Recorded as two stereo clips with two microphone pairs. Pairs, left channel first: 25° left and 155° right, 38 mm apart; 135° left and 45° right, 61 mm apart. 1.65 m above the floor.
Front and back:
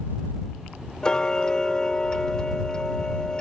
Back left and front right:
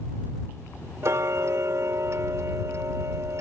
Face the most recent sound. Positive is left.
turn(degrees=-40)